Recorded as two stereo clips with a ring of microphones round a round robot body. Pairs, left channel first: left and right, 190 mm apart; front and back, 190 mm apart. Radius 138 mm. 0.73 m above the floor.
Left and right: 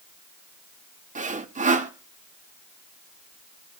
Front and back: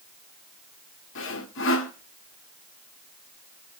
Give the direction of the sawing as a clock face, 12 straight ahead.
1 o'clock.